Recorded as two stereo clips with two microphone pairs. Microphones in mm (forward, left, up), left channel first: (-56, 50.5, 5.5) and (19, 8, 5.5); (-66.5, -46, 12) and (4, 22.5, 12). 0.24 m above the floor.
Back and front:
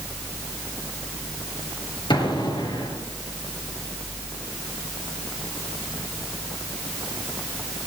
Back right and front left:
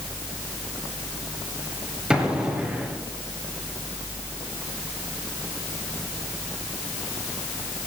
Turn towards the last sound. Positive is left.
turn(degrees=125)